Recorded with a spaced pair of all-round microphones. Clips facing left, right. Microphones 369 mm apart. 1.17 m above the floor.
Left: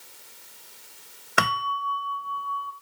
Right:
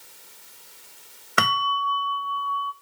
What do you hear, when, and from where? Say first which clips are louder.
1.4 s a bell: right 1 dB; 5° right (ahead or behind), 1.5 m